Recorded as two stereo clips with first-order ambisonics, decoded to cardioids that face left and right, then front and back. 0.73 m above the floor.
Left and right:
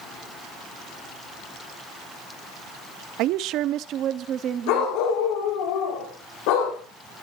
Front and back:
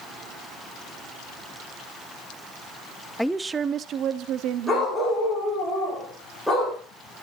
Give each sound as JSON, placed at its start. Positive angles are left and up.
{"t": 3.2, "sound": "a woman speaking", "azimuth_deg": -85, "distance_m": 0.6}
{"t": 4.7, "sound": "a dog barking", "azimuth_deg": 95, "distance_m": 8.5}